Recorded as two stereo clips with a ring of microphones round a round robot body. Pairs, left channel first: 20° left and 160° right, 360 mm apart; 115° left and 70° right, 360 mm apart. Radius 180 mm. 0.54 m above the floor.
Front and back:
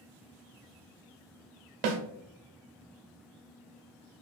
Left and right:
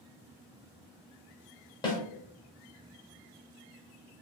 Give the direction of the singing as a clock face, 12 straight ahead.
No singing in this recording.